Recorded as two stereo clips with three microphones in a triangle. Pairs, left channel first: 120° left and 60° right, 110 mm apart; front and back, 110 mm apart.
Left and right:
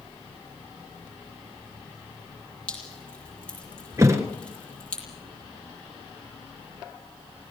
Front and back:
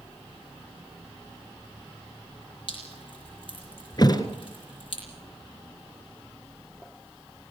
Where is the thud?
15° right, 1.9 m.